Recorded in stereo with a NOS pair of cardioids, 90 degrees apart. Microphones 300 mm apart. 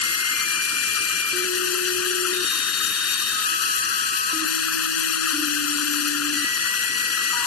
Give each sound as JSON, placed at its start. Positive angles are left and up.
{"t": 0.0, "sound": "running water", "azimuth_deg": 50}